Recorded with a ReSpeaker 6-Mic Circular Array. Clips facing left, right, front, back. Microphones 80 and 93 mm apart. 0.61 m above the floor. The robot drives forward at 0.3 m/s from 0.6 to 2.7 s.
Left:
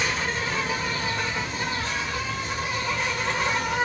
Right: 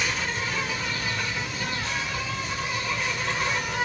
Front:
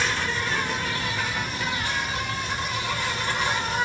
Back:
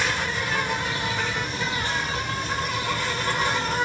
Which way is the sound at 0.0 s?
115° left.